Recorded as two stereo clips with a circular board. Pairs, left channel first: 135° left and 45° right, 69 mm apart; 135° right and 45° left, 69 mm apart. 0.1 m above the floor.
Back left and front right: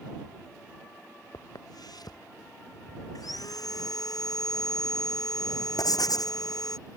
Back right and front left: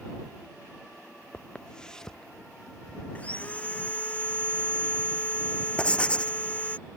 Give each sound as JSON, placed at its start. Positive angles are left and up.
{"t": 1.3, "sound": "footsteps", "azimuth_deg": 150}
{"t": 3.1, "sound": "sawing", "azimuth_deg": 155}
{"t": 5.8, "sound": "writing", "azimuth_deg": 150}